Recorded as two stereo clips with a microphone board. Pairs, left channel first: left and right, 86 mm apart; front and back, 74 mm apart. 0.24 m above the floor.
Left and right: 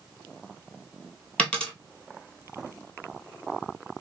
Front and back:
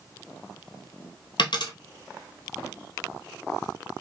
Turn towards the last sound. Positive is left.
turn(degrees=10)